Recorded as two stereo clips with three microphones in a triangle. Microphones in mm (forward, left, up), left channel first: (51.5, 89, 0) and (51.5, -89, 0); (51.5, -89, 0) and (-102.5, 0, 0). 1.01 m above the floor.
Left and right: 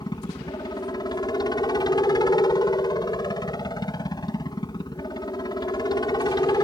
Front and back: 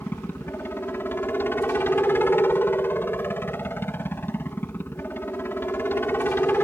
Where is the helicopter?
40° left.